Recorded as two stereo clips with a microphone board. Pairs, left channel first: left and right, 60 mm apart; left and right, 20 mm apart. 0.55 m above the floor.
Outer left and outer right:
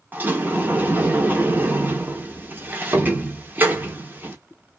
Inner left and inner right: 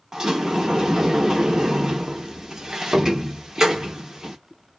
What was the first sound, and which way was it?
A sliding door, 30° right (ahead or behind).